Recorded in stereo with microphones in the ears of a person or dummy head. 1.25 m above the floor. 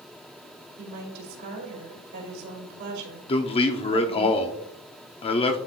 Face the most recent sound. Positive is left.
turn(degrees=25)  # may be behind; listen again after turning